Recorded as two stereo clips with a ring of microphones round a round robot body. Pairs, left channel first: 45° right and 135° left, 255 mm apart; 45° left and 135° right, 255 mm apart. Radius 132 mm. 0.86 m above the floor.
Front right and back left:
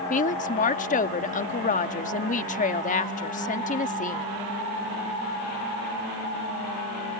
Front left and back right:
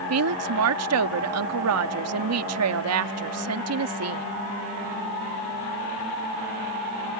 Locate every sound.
0.1 s a woman speaking: 105° right